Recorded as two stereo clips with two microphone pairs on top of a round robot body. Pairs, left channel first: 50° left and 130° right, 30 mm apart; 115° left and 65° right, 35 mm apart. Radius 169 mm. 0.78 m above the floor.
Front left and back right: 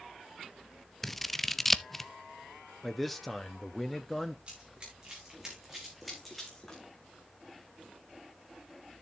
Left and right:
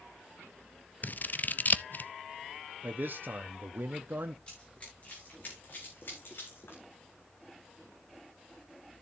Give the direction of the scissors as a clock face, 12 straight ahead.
7 o'clock.